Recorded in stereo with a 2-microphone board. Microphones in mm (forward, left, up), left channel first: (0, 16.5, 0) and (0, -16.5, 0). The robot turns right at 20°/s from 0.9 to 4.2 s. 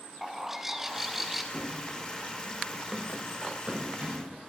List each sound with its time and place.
0.2 s a bird: 10° right (ahead or behind), 0.7 m; by 1.4 s 5° right (ahead or behind), 0.7 m
1.5 s running footsteps: 20° left (ahead or behind), 1.0 m; by 4.4 s 45° right (ahead or behind), 4 m